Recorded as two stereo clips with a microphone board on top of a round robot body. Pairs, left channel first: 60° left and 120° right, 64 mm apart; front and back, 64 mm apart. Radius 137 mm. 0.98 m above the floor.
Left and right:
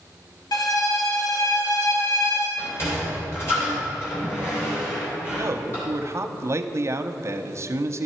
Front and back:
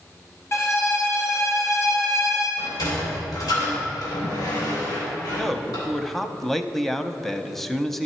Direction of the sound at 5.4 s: 85° right.